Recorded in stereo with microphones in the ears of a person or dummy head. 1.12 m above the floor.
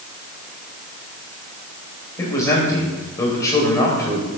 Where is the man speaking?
15° left (ahead or behind), 4.5 m.